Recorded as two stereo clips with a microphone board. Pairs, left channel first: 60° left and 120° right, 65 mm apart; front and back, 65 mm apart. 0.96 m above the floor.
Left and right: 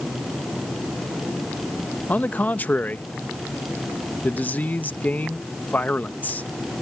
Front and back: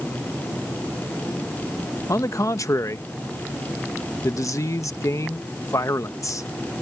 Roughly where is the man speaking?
Ahead.